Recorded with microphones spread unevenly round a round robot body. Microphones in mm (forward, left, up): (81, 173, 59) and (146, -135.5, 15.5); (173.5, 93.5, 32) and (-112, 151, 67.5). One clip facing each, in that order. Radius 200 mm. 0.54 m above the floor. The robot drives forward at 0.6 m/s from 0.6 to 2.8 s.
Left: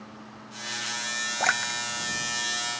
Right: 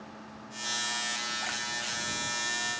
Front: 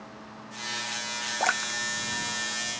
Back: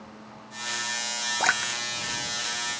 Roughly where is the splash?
Left.